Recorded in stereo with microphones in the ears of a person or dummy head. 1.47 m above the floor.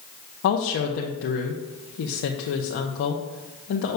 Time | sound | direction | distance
0.4 | a woman speaking | 60° left (ahead or behind) | 0.7 m